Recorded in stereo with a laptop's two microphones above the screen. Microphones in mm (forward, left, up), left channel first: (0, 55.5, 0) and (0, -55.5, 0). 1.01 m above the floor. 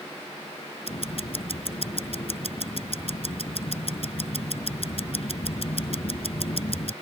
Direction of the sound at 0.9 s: 60° left (ahead or behind).